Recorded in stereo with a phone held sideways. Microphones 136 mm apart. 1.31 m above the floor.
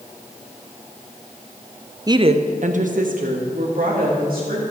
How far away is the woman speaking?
About 0.5 m.